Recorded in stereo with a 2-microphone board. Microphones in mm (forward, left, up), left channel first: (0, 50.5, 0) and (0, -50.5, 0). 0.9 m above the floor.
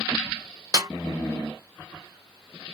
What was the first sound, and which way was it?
A snare drum, 40° right (ahead or behind).